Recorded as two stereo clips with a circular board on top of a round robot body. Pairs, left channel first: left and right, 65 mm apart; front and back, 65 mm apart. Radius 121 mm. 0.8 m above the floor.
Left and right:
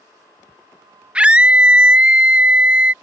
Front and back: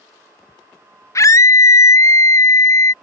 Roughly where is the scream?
Ahead.